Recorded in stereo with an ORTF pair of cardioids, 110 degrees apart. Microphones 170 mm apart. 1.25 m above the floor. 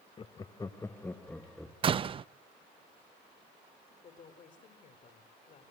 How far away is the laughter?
About 1.0 m.